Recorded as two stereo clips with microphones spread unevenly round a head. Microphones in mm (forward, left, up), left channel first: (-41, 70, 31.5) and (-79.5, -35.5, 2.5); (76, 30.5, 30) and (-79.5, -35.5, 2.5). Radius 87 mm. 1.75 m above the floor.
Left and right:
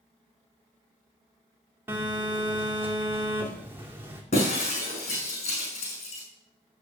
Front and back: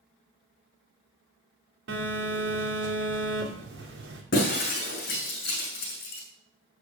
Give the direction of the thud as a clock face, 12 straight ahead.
I don't hear a thud.